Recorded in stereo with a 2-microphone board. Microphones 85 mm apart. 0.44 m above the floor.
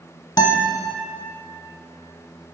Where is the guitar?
45° left (ahead or behind), 0.7 m.